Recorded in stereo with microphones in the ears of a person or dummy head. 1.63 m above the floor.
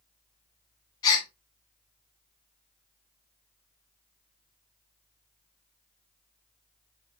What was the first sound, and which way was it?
A gasp, 25° left (ahead or behind).